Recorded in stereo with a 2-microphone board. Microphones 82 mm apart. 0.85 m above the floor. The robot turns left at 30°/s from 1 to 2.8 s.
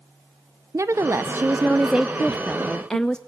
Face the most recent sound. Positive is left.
turn(degrees=170)